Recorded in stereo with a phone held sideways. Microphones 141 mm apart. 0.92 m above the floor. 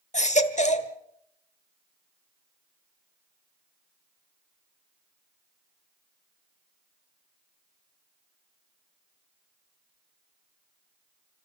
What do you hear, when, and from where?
0.1 s a baby crying: 55° left (ahead or behind), 1.3 m